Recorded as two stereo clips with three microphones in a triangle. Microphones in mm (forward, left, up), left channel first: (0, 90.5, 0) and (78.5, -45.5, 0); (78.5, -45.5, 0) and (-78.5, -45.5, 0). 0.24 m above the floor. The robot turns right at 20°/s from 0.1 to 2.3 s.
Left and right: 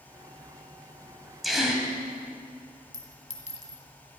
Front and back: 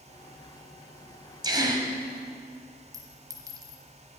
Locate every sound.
1.4 s a gasp: 150° right, 1.7 m; by 1.9 s 140° right, 1.7 m
2.9 s a clink: 120° left, 1.5 m